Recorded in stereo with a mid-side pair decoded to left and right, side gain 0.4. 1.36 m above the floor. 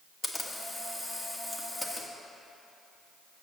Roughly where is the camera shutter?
Ahead left.